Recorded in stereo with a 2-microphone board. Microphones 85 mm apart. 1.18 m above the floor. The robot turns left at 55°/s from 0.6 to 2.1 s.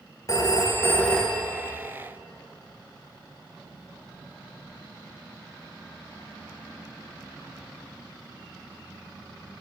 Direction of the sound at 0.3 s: 40° left.